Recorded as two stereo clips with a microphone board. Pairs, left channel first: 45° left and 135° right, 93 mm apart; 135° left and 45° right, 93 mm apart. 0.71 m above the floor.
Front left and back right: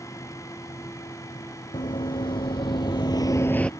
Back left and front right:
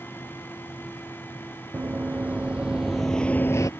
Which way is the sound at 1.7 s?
25° left.